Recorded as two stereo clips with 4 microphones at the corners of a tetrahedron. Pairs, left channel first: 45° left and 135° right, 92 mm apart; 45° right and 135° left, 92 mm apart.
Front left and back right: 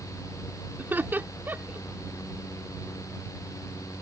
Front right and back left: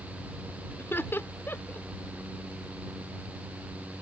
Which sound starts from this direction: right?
Laughter, at 0.8 s.